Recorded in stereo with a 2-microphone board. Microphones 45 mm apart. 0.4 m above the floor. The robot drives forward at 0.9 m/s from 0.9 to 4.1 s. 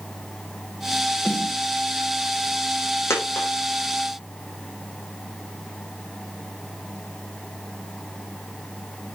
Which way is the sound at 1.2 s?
25° left (ahead or behind).